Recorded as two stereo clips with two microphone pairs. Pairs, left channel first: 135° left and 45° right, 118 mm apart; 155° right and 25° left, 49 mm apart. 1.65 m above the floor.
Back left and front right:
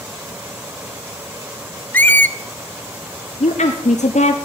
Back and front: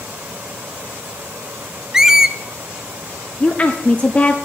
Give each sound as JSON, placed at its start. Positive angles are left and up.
{"t": 1.9, "sound": "a squeak", "azimuth_deg": 90, "distance_m": 0.5}
{"t": 3.4, "sound": "a woman speaking", "azimuth_deg": 145, "distance_m": 0.8}